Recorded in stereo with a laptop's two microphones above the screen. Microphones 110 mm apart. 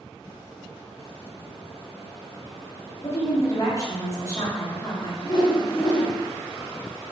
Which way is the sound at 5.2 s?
40° left (ahead or behind).